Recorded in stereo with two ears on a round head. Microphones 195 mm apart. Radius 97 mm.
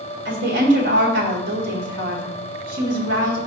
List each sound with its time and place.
0.2 s a woman speaking: 60° right (ahead or behind), 1.7 m